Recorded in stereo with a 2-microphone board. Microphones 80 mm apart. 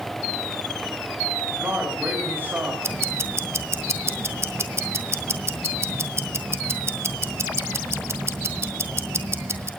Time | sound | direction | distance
1.5 | a man speaking | 25° right (ahead or behind) | 5.5 m
2.8 | ticking | 35° right (ahead or behind) | 1.7 m